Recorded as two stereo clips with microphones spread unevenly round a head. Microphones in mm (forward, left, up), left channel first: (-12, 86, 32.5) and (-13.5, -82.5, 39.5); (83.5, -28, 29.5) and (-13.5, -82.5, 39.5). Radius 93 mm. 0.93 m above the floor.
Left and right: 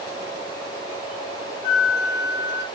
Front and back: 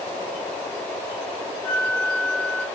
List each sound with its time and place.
1.6 s a flute: 125° left, 1.9 m